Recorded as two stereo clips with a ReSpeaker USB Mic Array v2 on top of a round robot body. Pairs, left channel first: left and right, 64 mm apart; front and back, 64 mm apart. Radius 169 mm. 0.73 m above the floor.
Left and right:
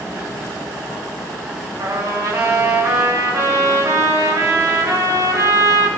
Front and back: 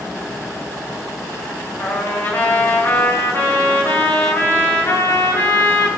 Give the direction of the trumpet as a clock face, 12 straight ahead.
2 o'clock.